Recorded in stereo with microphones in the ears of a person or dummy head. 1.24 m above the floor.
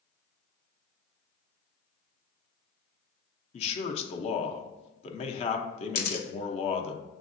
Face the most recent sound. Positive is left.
turn(degrees=50)  # may be behind; listen again after turning